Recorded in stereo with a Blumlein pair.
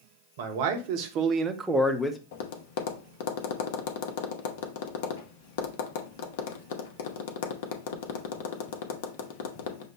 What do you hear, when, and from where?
0.4 s a man speaking: 55° right, 1.2 m; by 2.2 s 15° left, 0.8 m
2.3 s tapping: 50° left, 0.7 m